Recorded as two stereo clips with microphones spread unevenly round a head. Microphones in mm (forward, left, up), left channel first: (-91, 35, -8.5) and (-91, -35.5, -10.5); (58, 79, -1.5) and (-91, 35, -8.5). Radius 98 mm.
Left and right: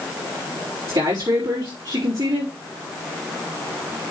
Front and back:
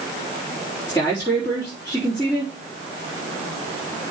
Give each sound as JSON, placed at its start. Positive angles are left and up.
{"t": 0.9, "sound": "a man speaking", "azimuth_deg": -55, "distance_m": 3.5}